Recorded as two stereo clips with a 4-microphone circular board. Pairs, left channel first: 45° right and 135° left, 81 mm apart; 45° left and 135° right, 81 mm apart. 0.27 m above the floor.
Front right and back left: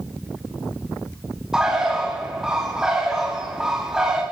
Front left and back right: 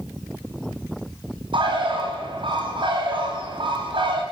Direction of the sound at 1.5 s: 140° right.